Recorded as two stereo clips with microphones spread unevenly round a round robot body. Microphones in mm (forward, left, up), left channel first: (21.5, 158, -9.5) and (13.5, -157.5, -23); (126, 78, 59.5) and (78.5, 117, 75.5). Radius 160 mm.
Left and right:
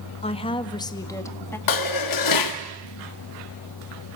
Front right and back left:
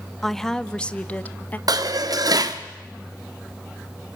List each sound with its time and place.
0.2 s a woman speaking: 25° left, 1.2 m; by 1.6 s 5° left, 1.6 m
1.7 s dishes clattering: 120° left, 1.3 m